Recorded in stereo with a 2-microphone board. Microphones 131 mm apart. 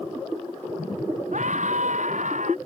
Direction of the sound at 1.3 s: 70° right (ahead or behind).